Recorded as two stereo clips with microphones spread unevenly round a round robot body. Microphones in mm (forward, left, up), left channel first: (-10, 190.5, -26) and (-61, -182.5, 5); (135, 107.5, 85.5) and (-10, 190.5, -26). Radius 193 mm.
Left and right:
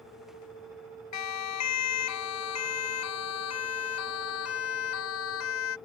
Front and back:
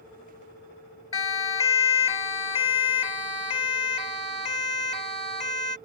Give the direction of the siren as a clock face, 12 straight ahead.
11 o'clock.